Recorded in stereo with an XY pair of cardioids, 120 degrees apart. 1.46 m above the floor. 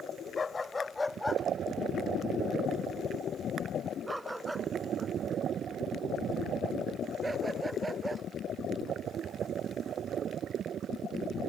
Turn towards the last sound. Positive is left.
turn(degrees=-20)